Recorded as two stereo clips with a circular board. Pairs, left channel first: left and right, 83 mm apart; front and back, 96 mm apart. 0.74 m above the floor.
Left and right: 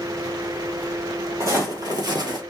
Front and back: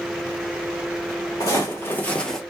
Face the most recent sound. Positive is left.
turn(degrees=-90)